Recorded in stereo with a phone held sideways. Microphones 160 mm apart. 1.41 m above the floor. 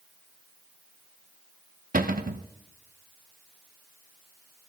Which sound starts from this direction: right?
A cupboard door, at 1.9 s.